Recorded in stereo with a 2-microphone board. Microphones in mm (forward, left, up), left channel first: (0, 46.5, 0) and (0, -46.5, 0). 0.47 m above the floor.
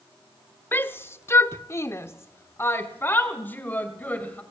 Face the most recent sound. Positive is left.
turn(degrees=20)  # may be behind; listen again after turning